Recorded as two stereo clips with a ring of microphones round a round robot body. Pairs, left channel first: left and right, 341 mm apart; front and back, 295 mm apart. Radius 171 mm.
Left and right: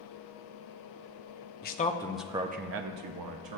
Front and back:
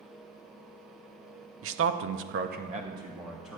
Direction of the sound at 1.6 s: 145° left.